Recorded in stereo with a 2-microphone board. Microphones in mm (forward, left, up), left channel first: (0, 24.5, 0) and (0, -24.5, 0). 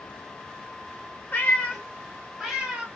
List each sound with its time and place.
1.3 s a cat meowing: 30° left (ahead or behind), 0.8 m; by 2.9 s 15° right (ahead or behind), 1.2 m